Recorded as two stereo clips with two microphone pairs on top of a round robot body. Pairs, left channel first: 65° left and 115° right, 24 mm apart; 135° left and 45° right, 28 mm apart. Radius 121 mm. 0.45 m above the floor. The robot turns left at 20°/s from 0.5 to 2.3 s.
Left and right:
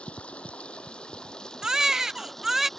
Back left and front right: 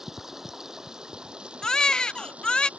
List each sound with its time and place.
0.0 s running water: 30° left; by 2.8 s 10° right
1.6 s a baby crying: 170° right; by 2.7 s straight behind